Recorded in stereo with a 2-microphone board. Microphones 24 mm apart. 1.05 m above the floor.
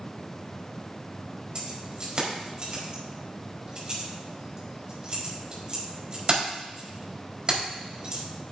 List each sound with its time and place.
1.6 s keys jangling: 40° right (ahead or behind), 4 m